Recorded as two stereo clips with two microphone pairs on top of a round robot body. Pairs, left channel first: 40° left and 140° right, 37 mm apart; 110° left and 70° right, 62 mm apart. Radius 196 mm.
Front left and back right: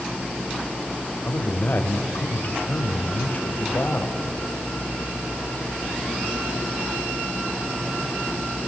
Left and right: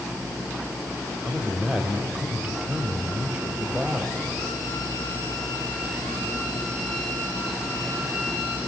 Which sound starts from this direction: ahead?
A man speaking, at 1.2 s.